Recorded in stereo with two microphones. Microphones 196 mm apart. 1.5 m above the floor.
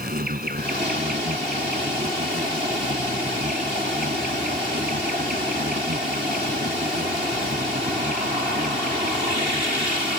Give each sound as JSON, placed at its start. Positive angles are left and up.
{"t": 0.0, "sound": "an insect", "side_deg": -50}